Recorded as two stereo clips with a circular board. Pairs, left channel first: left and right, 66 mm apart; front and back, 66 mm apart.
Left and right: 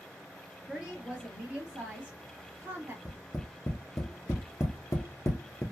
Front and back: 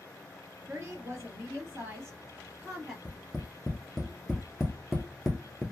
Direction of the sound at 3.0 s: 95° left.